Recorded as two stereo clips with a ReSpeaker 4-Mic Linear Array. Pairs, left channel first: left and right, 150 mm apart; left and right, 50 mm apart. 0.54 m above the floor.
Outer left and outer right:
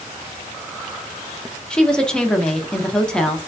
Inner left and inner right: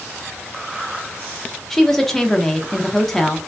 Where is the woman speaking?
5° left (ahead or behind), 0.7 m.